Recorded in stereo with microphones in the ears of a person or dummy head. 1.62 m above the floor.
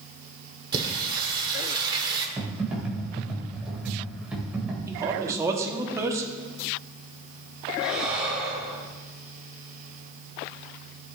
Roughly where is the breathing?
Centre.